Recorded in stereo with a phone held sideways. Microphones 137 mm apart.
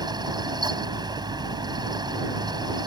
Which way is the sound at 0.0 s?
30° right (ahead or behind).